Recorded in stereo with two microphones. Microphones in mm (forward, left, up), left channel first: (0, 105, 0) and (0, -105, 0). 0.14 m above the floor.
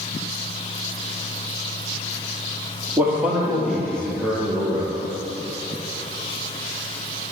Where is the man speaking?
10° right (ahead or behind), 3.5 m; by 4.9 s 20° left (ahead or behind), 3 m.